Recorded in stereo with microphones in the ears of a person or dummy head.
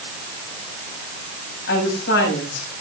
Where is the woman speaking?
65° left (ahead or behind), 9.5 m.